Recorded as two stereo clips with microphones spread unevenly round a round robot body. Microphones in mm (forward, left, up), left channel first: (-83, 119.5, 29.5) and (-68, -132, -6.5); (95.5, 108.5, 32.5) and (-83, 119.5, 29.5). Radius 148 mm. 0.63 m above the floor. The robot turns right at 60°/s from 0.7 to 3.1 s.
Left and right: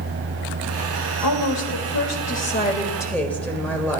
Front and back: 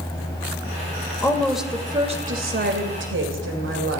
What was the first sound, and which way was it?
A woman speaking, 65° left.